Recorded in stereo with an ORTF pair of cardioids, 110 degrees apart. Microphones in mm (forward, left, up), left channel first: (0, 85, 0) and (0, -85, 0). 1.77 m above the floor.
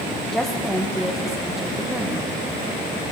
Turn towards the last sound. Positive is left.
turn(degrees=-5)